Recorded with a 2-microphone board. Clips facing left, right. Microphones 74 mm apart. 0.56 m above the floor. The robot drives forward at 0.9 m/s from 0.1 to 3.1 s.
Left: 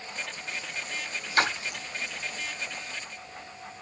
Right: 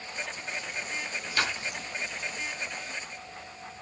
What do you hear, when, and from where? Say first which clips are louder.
1.4 s a splash: left 5 dB; 45° left (ahead or behind), 1.3 m; by 1.8 s 55° left (ahead or behind), 1.1 m